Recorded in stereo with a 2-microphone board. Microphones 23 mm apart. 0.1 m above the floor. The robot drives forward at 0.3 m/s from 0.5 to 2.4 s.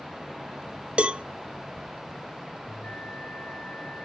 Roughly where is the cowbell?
Right.